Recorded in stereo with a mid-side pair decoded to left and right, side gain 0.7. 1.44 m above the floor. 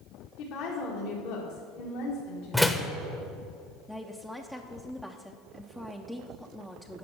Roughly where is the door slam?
Ahead.